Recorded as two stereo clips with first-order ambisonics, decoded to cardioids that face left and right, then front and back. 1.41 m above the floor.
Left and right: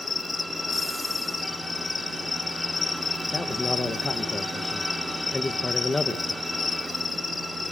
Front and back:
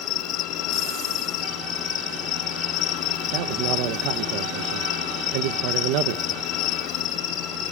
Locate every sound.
0.0 s an insect: 20° left, 2.5 m
3.3 s a man speaking: 170° left, 1.2 m